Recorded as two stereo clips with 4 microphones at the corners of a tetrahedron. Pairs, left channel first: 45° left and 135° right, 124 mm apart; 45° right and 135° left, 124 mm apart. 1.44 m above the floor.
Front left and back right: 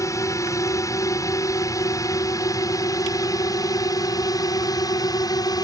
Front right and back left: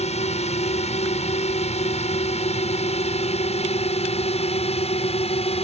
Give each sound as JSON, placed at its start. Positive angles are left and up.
{"t": 0.0, "sound": "a drone", "azimuth_deg": -20}